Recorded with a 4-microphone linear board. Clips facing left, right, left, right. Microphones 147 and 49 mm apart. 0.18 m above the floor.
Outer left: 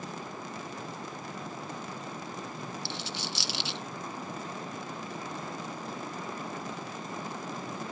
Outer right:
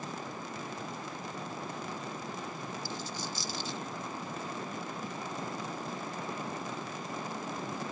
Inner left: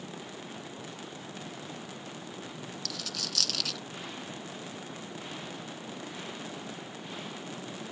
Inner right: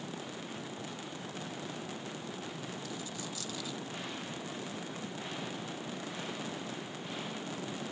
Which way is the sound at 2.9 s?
80° left.